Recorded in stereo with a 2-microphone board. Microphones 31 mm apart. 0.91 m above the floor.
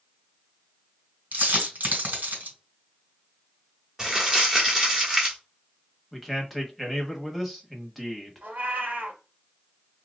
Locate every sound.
1.3 s a dropped coin: 75° right (ahead or behind), 1.9 m
4.0 s crumpling: 15° right (ahead or behind), 1.2 m
6.1 s a man speaking: centre (ahead or behind), 1.2 m
8.4 s a cat meowing: 80° right, 1.4 m